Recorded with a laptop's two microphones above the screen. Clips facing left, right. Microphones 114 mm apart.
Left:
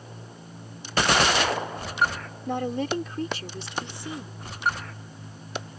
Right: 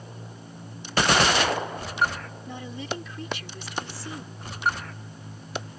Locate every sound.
2.5 s a woman speaking: 65° left (ahead or behind); by 4.5 s 10° left (ahead or behind)